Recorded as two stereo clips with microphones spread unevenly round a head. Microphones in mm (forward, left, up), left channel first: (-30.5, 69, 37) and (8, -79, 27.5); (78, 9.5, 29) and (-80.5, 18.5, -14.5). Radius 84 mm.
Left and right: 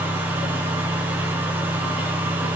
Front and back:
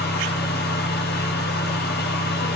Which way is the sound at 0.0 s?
5° left.